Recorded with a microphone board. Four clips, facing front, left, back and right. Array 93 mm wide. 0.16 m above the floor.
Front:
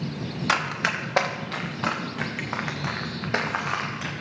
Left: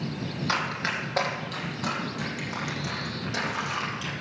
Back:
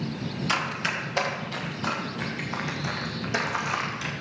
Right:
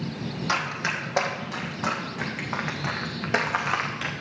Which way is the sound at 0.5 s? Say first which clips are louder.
Right 1 dB, front 4 dB; 5° right.